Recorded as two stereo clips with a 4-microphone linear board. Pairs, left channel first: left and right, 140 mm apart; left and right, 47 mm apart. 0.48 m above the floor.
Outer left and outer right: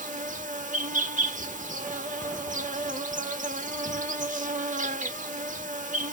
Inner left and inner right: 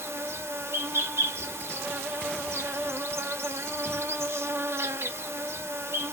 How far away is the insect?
About 0.7 m.